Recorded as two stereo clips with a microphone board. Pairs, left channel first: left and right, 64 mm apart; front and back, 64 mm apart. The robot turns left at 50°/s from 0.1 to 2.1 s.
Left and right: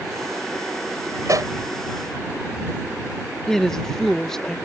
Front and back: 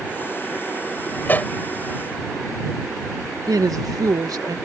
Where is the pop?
55° right; by 1.5 s 70° right.